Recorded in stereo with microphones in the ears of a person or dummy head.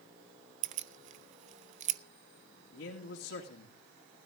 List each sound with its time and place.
0.6 s keys jangling: 45° right (ahead or behind), 0.6 m
2.7 s a man speaking: 70° left (ahead or behind), 2.5 m